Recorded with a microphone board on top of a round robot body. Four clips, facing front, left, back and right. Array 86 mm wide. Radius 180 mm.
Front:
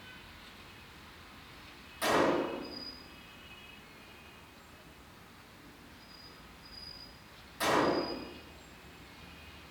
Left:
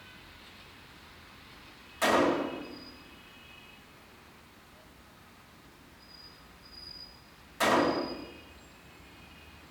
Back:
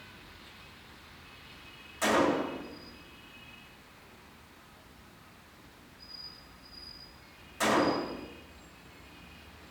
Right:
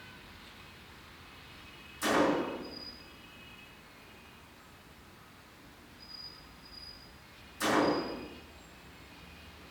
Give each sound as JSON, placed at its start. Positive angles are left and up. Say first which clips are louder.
{"t": 2.0, "sound": "a gunshot", "louder": "left 2 dB, back 2 dB", "azimuth_deg": 110, "distance_m": 2.5}